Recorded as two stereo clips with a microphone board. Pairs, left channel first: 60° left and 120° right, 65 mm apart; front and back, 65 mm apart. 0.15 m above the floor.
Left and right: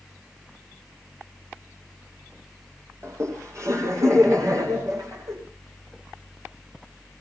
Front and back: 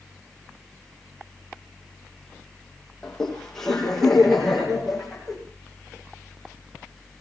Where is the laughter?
80° right, 6 m; by 5.3 s 90° right, 8 m.